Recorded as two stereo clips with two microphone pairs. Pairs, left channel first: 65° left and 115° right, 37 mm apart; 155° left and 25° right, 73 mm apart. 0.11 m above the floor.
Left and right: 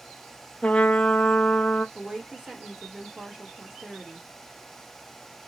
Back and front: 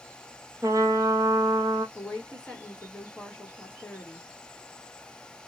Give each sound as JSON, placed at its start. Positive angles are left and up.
{"t": 0.6, "sound": "a trumpet", "azimuth_deg": 10, "distance_m": 0.6}
{"t": 1.9, "sound": "a woman speaking", "azimuth_deg": -160, "distance_m": 1.1}